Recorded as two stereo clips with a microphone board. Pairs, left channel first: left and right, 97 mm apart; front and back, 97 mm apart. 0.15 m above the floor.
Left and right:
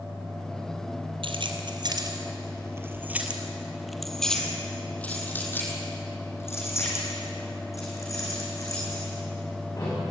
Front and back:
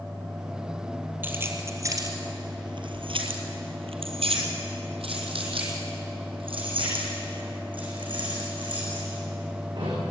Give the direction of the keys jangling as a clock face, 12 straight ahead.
4 o'clock.